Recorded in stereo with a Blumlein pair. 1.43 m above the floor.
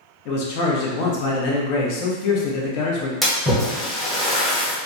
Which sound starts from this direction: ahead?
A splash, at 3.2 s.